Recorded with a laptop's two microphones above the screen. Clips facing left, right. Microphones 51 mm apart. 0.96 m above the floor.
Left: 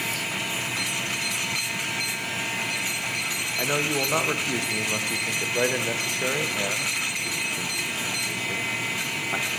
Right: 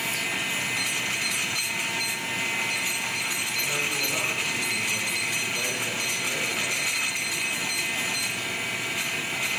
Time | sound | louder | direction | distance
3.6 | a man speaking | left 5 dB | 50° left (ahead or behind) | 0.8 m